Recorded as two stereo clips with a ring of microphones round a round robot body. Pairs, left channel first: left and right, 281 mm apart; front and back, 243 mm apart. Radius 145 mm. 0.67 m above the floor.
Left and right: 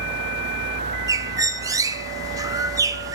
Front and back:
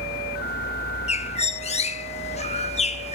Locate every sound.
1.1 s a bird: 25° right, 1.0 m